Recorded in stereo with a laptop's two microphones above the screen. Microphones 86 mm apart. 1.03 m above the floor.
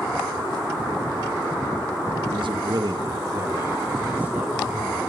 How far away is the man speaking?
About 1.5 m.